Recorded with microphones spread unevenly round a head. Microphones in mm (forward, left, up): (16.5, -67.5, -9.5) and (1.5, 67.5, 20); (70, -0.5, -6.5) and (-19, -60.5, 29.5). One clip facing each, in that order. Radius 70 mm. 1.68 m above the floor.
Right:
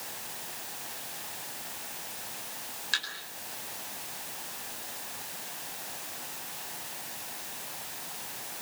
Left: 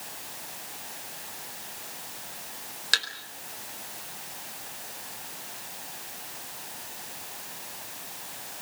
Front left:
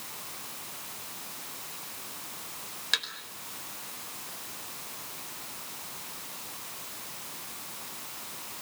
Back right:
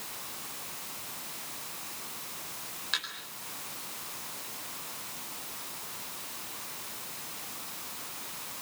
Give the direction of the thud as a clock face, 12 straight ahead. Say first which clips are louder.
Left 6 dB, front left 2 dB; 9 o'clock.